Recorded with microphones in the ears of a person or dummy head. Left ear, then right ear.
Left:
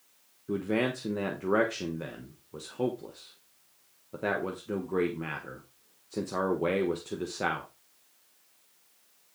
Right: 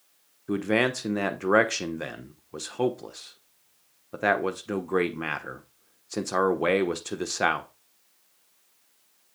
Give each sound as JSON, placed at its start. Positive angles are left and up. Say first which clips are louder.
{"t": 0.5, "sound": "a man speaking", "louder": "right 5 dB", "side_deg": -55, "distance_m": 1.1}